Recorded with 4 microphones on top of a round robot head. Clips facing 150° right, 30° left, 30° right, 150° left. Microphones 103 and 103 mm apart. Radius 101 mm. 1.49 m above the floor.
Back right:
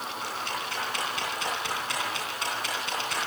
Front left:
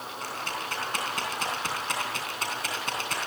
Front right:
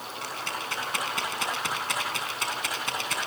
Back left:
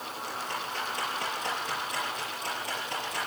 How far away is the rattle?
About 9 m.